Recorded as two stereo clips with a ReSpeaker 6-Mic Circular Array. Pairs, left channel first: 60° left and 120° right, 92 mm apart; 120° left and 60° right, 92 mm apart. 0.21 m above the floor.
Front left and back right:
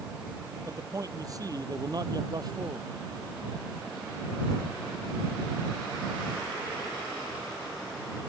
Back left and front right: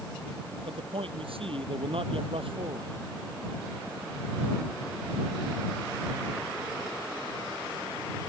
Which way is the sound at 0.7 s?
65° right.